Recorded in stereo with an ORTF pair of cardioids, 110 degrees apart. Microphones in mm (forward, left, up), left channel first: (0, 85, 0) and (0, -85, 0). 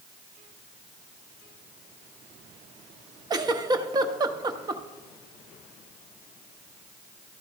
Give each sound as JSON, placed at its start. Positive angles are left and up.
{"t": 3.3, "sound": "a giggle", "azimuth_deg": -25, "distance_m": 0.6}